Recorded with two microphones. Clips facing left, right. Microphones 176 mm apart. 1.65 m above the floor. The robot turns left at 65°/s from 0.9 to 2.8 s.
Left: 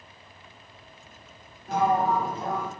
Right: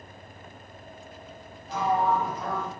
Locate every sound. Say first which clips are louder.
1.7 s a sliding door: left 2 dB; 75° left, 1.1 m; by 2.7 s 10° left, 1.1 m